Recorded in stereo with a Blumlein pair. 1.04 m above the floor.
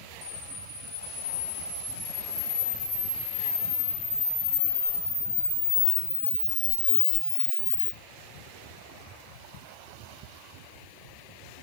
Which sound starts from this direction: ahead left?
A camera shutter, at 0.2 s.